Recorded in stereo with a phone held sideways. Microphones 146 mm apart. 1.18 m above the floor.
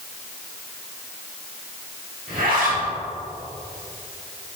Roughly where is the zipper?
Right.